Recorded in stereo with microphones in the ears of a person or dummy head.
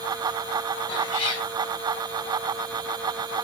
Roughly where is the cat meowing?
Left.